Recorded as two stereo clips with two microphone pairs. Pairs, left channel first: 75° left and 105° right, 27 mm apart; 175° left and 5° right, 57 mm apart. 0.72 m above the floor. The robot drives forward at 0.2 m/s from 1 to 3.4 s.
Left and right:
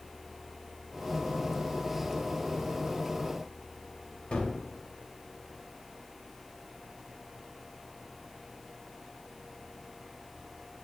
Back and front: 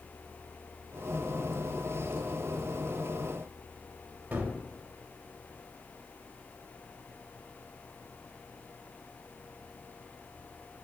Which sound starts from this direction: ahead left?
A gunshot, at 4.3 s.